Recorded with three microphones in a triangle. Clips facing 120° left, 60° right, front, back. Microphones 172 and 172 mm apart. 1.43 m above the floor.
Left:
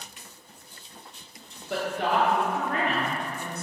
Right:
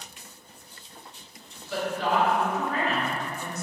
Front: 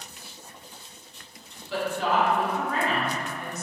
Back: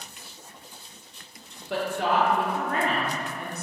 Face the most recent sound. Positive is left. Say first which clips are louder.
# even, even
turn(degrees=150)